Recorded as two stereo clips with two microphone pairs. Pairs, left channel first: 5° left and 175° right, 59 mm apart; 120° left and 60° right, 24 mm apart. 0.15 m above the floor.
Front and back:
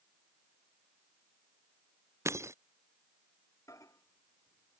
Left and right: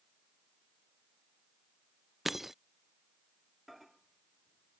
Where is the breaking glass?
135° right.